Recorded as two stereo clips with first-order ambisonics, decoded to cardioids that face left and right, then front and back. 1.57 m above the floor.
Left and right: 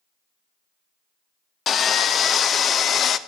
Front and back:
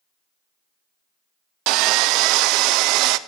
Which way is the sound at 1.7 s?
155° left.